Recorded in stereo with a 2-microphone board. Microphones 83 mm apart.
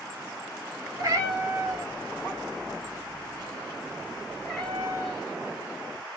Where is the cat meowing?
40° right (ahead or behind), 1.5 m; by 5.2 s 15° left (ahead or behind), 1.6 m.